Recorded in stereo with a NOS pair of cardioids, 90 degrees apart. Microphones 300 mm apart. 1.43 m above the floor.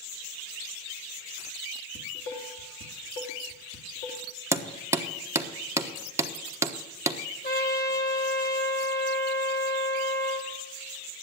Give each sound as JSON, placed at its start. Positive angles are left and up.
{"t": 1.9, "sound": "dishes clattering", "azimuth_deg": 45, "distance_m": 2.5}
{"t": 4.5, "sound": "hammering", "azimuth_deg": -10, "distance_m": 1.2}
{"t": 7.4, "sound": "a trumpet", "azimuth_deg": 30, "distance_m": 2.5}